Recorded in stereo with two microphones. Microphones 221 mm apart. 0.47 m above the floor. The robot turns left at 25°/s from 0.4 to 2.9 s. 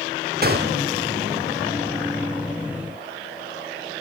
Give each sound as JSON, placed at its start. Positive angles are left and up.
{"t": 0.4, "sound": "a gunshot", "side_deg": -45, "distance_m": 0.6}